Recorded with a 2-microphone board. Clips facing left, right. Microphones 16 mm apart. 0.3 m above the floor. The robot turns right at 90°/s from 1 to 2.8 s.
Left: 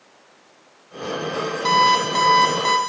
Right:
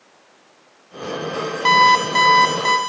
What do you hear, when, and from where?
1.6 s an alarm clock: 110° right, 0.9 m; by 2.8 s 10° right, 0.9 m